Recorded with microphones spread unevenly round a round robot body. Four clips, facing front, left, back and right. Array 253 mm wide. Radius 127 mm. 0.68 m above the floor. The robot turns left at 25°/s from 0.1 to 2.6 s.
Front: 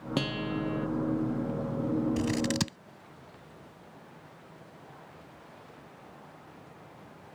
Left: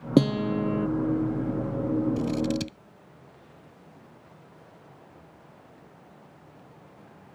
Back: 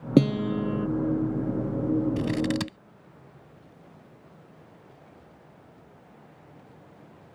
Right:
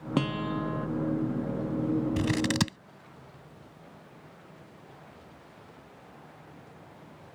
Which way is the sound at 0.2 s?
145° left.